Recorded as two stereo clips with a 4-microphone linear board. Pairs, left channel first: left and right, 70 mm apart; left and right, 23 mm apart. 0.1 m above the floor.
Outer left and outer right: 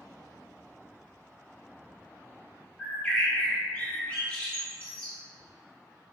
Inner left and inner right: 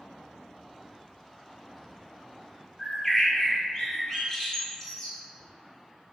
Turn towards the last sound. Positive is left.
turn(degrees=25)  # may be behind; listen again after turning